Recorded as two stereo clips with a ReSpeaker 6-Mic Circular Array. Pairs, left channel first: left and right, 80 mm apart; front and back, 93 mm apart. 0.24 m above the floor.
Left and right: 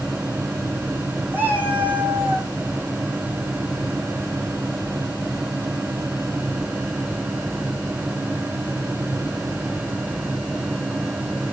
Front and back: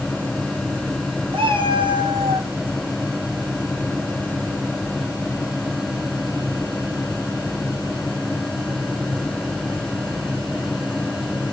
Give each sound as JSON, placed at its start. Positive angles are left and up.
{"t": 1.3, "sound": "a cat meowing", "azimuth_deg": -155, "distance_m": 3.0}